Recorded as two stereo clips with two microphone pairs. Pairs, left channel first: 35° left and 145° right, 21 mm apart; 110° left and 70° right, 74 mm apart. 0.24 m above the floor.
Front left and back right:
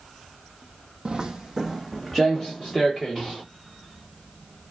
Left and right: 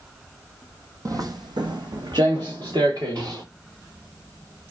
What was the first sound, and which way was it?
Footsteps, 110° right.